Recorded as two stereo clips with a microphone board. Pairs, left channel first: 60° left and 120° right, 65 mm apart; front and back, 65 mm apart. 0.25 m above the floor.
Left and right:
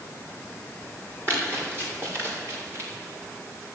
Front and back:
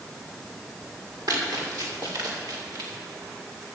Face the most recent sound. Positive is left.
turn(degrees=-165)